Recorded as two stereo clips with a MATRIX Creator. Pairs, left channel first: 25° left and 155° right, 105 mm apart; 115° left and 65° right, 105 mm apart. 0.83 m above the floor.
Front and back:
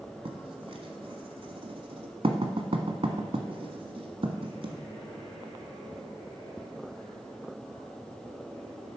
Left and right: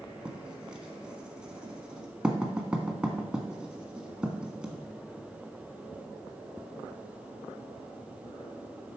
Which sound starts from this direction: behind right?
Writing, at 0.2 s.